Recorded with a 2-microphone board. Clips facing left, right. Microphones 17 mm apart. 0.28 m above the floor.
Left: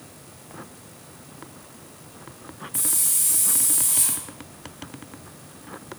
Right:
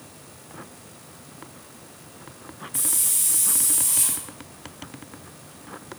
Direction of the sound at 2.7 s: 5° right (ahead or behind).